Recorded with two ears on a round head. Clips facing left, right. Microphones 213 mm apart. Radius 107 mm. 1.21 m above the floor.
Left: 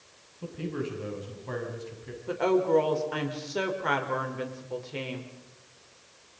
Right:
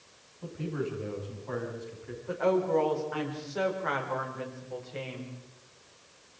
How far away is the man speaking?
About 7 m.